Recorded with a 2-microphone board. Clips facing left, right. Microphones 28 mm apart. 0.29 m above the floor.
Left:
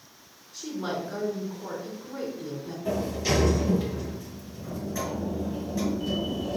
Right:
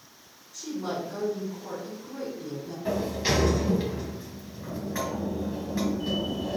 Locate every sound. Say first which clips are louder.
0.5 s a woman speaking: even; 30° left (ahead or behind), 2.5 m
2.9 s a sliding door: even; 35° right (ahead or behind), 2.5 m